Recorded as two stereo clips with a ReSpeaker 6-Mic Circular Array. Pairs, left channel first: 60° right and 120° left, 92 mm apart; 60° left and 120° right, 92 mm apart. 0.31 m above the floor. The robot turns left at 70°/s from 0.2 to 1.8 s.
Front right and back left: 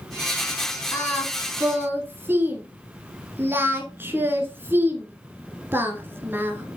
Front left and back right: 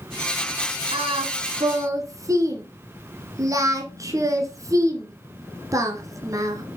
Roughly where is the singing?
Right.